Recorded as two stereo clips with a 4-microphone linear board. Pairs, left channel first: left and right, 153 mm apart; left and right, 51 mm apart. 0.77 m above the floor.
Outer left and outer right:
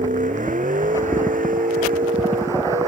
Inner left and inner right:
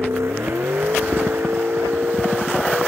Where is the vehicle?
60° right (ahead or behind); by 2.9 s 70° right (ahead or behind).